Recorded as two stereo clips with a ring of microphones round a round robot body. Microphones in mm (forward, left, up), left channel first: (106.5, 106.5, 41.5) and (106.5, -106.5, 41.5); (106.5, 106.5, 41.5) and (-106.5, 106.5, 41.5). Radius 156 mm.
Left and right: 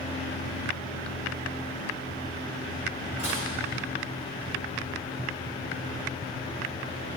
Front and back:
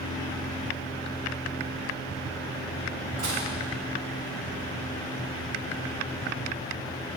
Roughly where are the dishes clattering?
Behind.